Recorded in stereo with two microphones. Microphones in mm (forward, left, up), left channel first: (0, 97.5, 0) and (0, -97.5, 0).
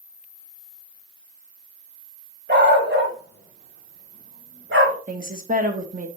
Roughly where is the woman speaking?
Right.